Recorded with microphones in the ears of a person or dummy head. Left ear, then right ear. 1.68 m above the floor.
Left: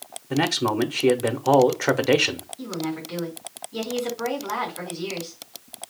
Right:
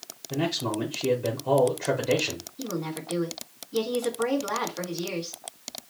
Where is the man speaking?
50° left (ahead or behind), 0.8 m.